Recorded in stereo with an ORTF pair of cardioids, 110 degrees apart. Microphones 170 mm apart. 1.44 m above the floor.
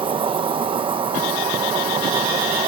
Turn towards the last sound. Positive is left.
turn(degrees=-30)